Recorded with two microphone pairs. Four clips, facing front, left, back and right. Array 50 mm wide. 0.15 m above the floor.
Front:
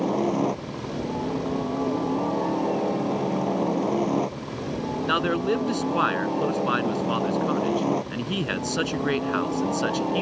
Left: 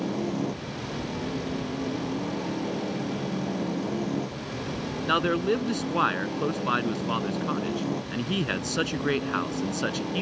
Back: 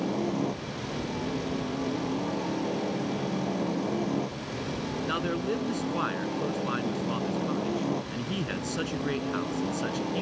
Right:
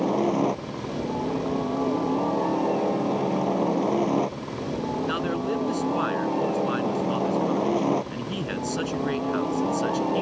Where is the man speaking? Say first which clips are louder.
Left 7 dB, front 7 dB; 30° left.